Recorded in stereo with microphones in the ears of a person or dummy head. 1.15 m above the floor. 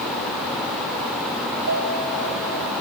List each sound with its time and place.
1.7 s a piano: 85° right, 5.5 m